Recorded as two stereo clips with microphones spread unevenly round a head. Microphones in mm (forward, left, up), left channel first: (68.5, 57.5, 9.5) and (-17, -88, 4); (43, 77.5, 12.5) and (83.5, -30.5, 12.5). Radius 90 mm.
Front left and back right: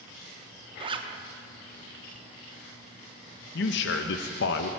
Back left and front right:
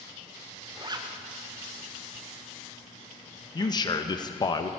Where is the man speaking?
60° left, 0.6 m.